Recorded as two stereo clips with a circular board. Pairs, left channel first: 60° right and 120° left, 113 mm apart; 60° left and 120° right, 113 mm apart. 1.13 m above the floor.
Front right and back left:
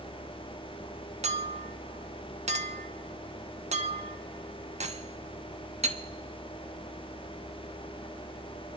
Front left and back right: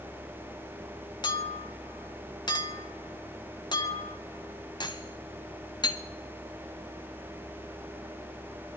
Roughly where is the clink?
Left.